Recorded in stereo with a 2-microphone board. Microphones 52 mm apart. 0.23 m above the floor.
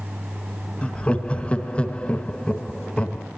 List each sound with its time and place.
0.8 s laughter: 25° left (ahead or behind), 1.3 m